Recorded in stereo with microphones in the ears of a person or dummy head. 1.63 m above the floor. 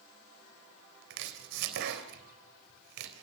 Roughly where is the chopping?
Right.